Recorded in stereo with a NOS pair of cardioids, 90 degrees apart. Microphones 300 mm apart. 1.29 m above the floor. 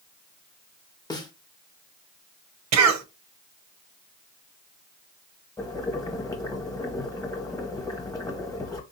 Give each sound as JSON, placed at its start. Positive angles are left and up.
{"t": 1.1, "sound": "a snare drum", "azimuth_deg": 15, "distance_m": 0.8}
{"t": 2.7, "sound": "a cough", "azimuth_deg": -60, "distance_m": 0.7}
{"t": 5.6, "sound": "boiling", "azimuth_deg": 10, "distance_m": 1.1}